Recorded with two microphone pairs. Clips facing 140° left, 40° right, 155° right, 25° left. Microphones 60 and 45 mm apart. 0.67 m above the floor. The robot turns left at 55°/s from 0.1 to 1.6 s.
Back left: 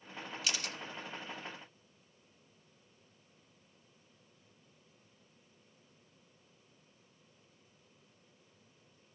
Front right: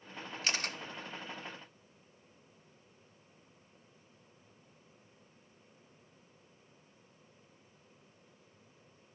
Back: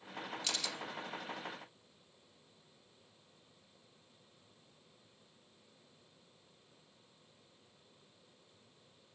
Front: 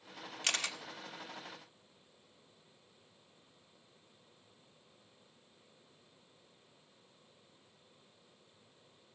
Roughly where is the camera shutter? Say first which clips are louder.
Front right 4 dB, front 6 dB; ahead.